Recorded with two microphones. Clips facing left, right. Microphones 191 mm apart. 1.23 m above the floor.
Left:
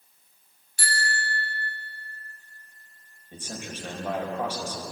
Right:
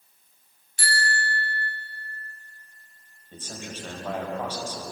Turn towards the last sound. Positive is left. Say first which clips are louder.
# left 1 dB
turn(degrees=15)  # may be behind; listen again after turning